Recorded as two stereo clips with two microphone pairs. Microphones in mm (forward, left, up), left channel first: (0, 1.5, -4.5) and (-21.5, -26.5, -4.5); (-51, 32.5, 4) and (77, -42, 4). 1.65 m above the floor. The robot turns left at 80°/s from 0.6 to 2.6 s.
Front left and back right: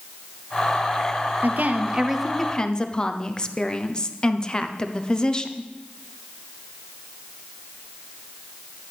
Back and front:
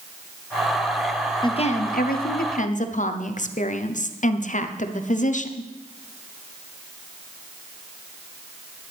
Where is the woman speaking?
150° right, 0.7 m; by 5.7 s 115° left, 0.7 m.